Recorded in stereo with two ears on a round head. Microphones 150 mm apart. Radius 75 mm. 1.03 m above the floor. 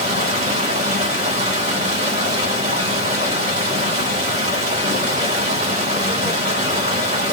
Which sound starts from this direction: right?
Running water, at 0.0 s.